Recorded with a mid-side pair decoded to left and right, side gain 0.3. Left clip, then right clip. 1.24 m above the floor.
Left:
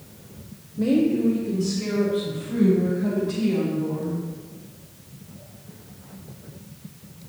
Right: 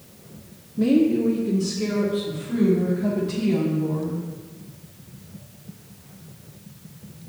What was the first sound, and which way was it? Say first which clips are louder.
A woman speaking: right 2 dB; 65° right.